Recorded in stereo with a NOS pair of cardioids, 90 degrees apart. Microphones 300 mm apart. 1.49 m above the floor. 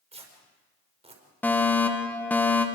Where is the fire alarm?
5° left, 2 m.